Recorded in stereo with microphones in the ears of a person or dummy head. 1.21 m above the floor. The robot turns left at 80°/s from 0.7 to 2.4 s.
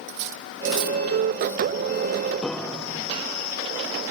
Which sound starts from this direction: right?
Cutlery clinking, at 0.1 s.